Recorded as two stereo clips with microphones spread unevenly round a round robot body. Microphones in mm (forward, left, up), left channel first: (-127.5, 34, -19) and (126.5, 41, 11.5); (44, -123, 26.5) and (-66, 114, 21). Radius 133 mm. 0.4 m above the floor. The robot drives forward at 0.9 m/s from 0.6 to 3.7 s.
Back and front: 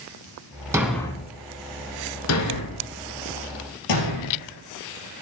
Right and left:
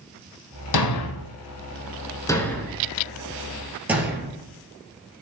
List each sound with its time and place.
0.7 s a thud: 80° right, 0.9 m; by 4.5 s 160° right, 2.5 m